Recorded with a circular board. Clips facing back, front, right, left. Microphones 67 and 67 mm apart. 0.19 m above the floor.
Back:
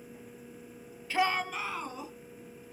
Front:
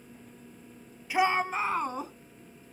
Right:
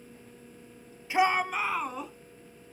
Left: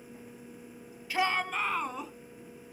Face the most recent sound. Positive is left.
turn(degrees=5)